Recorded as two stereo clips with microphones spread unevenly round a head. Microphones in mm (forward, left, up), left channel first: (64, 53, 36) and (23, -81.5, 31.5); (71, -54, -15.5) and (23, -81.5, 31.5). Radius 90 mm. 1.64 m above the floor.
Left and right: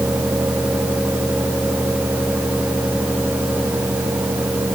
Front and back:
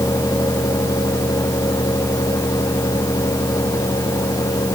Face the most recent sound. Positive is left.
No sound to turn to.